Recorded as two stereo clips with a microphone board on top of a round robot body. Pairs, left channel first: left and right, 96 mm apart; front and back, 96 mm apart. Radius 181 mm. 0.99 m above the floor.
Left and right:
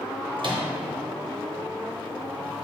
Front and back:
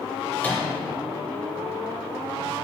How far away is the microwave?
About 0.9 m.